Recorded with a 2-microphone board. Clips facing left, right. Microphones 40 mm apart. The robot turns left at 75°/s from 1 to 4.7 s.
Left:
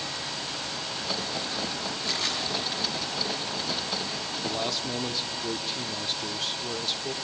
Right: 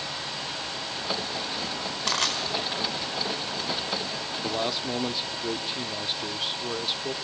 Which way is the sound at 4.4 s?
25° right (ahead or behind).